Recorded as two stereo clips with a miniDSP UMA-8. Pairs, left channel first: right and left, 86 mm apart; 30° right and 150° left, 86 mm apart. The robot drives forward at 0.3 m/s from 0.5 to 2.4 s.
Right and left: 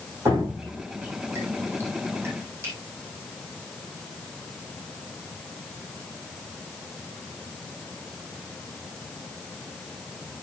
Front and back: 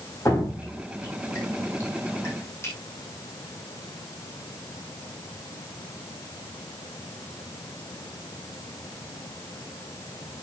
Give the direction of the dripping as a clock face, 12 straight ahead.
11 o'clock.